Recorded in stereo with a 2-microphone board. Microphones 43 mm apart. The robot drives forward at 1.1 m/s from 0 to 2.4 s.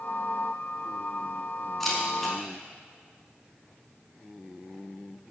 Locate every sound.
1.8 s a camera shutter: centre (ahead or behind), 3.5 m